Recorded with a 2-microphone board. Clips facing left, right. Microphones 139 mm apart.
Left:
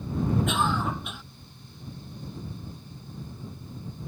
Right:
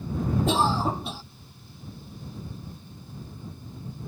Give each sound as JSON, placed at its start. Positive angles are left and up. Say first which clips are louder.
{"t": 0.5, "sound": "a cough", "louder": "right 3 dB", "side_deg": -30}